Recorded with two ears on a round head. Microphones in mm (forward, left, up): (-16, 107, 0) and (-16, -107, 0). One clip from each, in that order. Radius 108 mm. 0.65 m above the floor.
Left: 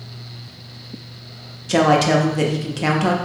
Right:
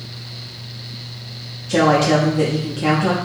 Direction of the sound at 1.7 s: 25° left (ahead or behind).